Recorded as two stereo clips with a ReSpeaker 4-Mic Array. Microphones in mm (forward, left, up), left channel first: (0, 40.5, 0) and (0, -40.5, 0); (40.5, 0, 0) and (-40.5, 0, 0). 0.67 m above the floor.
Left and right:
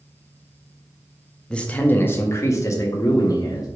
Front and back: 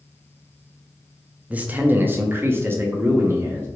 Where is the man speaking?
150° left, 0.7 m; by 3.7 s 125° left, 1.5 m.